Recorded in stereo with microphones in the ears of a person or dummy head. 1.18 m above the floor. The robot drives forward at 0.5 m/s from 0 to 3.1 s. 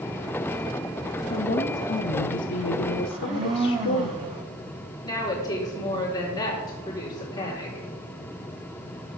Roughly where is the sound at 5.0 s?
Centre.